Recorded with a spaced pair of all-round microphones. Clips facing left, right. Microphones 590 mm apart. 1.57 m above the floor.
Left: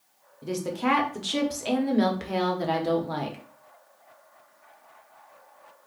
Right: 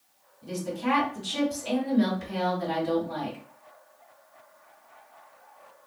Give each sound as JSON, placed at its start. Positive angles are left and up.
{"t": 0.4, "sound": "a woman speaking", "side_deg": 80, "distance_m": 0.8}